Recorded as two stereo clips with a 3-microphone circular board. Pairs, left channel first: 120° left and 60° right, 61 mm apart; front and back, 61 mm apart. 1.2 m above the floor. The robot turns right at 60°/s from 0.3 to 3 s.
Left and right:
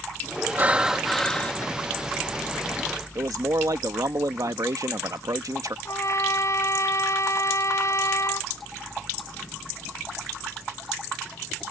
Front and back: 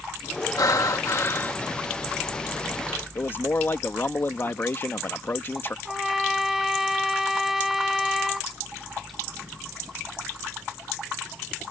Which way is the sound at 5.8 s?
95° left.